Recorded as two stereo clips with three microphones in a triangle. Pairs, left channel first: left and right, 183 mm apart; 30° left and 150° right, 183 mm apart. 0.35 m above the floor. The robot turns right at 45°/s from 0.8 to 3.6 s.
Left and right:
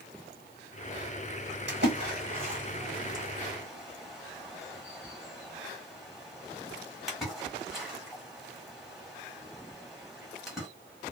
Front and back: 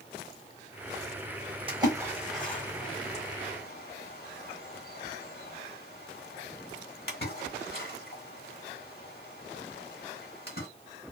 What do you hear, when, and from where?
1.7 s a splash: 90° right, 1.3 m; by 10.7 s straight ahead, 1.3 m